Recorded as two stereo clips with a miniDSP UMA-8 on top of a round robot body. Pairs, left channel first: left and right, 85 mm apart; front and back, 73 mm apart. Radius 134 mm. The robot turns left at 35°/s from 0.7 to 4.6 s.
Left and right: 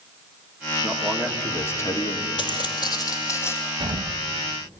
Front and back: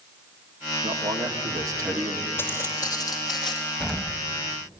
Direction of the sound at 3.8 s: 75° right.